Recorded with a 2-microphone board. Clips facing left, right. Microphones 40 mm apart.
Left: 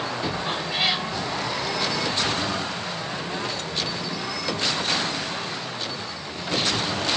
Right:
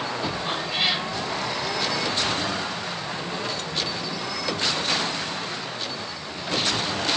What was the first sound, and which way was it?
A cat meowing, centre (ahead or behind).